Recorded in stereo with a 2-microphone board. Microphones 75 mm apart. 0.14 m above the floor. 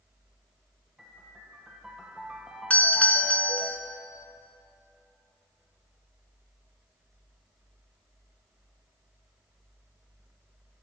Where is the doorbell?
20° left (ahead or behind), 1.7 m.